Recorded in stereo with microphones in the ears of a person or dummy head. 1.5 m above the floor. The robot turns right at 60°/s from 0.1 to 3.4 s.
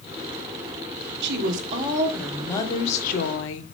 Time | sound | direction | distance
1.2 | a woman speaking | 60° right | 1.1 m